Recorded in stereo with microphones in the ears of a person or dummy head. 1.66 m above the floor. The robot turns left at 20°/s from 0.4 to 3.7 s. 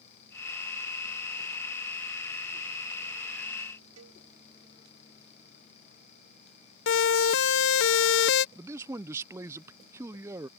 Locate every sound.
4.0 s a cowbell: 90° right
6.9 s a siren: 65° left (ahead or behind); by 8.4 s 60° left (ahead or behind)
8.6 s a man speaking: 20° right (ahead or behind)